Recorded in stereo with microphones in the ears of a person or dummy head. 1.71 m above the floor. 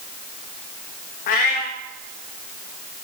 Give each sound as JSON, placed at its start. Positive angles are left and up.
{"t": 1.3, "sound": "a cat meowing", "side_deg": 40, "distance_m": 1.2}